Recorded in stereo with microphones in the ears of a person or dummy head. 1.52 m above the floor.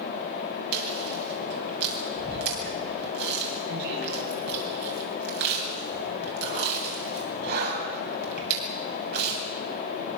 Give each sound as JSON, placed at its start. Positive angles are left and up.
{"t": 0.7, "sound": "chewing", "side_deg": -55, "distance_m": 8.0}